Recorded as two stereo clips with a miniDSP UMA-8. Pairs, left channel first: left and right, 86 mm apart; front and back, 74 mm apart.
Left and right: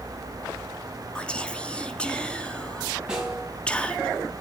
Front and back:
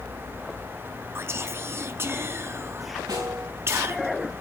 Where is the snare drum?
170° right, 5.5 m.